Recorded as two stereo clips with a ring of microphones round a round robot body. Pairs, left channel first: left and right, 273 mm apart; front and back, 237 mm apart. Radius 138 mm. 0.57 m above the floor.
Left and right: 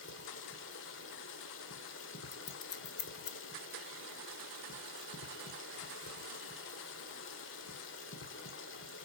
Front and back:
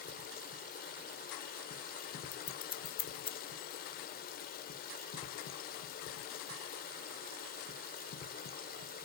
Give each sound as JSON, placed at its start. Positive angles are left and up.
{"t": 0.0, "sound": "running water", "azimuth_deg": 50, "distance_m": 1.7}
{"t": 2.3, "sound": "scissors", "azimuth_deg": 60, "distance_m": 1.2}